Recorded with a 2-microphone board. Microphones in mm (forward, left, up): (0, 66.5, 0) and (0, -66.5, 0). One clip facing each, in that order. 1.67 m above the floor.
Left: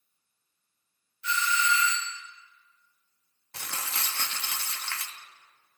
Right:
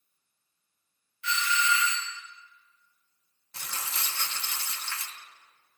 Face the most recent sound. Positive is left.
turn(degrees=65)  # may be behind; listen again after turning